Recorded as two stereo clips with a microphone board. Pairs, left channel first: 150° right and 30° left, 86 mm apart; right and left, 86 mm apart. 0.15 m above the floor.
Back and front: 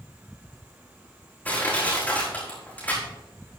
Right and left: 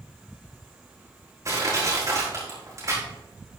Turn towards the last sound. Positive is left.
turn(degrees=140)